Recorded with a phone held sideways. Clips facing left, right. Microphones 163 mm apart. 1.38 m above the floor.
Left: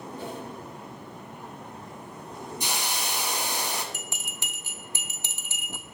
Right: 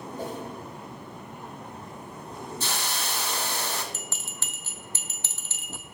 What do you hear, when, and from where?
0.2 s a whoosh: 40° right (ahead or behind), 1.3 m
2.6 s a hiss: 15° left (ahead or behind), 1.1 m
3.9 s a bell: 15° left (ahead or behind), 0.9 m